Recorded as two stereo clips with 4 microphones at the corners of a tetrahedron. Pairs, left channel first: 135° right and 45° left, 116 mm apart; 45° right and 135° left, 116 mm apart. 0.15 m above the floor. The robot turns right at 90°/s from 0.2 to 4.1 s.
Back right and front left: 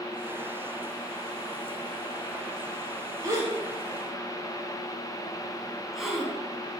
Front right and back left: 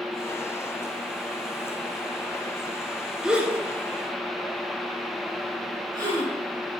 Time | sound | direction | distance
3.2 | a gasp | 50° left | 2 m